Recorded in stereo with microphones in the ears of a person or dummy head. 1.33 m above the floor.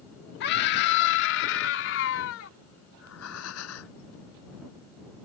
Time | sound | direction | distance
0.4 | a scream | 55° left (ahead or behind) | ?
2.9 | breathing | 85° left | ?